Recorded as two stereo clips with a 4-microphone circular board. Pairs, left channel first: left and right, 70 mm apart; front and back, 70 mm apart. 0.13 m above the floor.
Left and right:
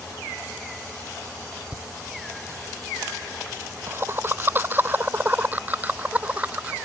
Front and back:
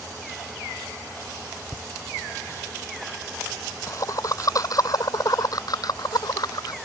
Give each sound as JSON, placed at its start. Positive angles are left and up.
{"t": 1.7, "sound": "laughter", "azimuth_deg": -55}